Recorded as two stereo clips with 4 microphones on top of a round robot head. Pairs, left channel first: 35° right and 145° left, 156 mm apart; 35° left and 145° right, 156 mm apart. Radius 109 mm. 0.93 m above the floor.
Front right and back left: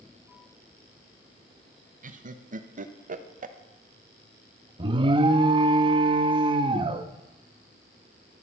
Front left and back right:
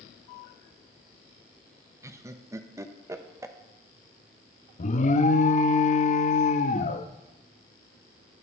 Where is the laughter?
150° left, 1.1 m.